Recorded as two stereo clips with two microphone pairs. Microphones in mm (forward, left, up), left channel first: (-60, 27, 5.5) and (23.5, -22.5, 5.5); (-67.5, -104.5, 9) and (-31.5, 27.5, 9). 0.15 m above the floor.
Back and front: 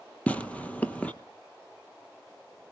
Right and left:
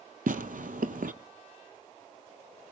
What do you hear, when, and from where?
0.3 s tearing paper: 75° left, 0.7 m